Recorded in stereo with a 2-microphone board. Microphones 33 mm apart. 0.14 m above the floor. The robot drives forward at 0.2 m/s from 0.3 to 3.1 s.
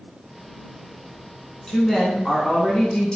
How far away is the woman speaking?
About 1.1 m.